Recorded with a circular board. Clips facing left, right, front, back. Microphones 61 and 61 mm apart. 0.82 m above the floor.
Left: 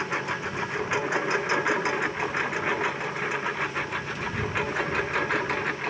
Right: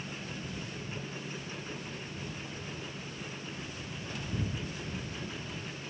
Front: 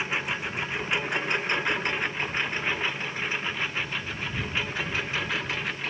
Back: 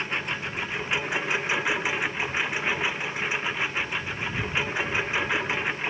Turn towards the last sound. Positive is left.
turn(degrees=110)